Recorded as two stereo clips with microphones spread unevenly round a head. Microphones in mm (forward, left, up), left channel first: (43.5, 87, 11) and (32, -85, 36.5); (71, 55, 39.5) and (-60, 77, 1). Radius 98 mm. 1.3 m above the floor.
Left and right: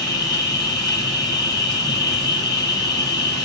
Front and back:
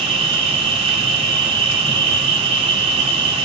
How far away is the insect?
About 2.5 m.